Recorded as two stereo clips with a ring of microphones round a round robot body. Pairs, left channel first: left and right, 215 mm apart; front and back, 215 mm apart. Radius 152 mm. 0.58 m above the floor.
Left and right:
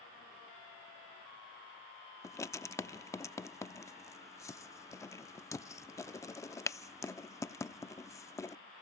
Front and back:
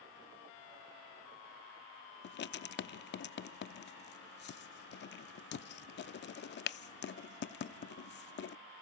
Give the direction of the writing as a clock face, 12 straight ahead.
11 o'clock.